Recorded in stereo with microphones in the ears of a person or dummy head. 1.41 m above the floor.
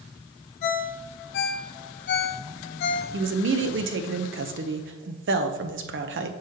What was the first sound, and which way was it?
A ringtone, 60° left (ahead or behind).